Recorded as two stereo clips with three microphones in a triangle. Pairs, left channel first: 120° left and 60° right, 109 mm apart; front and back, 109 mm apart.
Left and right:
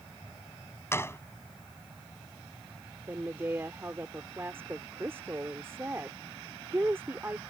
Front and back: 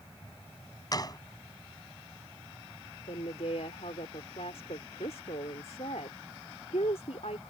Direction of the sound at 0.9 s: 55° left.